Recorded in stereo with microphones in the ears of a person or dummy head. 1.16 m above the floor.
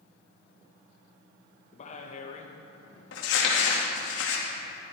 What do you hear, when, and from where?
1.7 s a man speaking: 40° left (ahead or behind), 1.4 m
3.1 s crumpling: 75° left (ahead or behind), 1.9 m